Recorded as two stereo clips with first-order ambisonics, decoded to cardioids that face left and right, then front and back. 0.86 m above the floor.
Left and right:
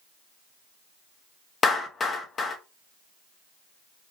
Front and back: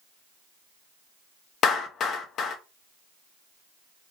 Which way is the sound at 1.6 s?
35° left.